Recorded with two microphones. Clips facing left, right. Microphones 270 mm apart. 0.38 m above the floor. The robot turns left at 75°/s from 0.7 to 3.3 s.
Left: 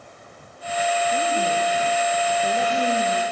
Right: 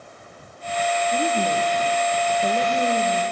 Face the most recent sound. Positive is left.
turn(degrees=-160)